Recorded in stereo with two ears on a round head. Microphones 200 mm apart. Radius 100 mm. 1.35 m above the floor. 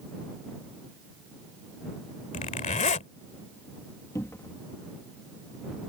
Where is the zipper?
35° left (ahead or behind).